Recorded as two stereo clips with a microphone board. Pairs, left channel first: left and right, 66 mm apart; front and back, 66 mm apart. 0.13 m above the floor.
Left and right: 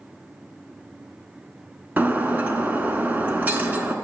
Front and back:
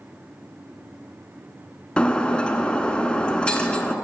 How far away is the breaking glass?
About 0.8 m.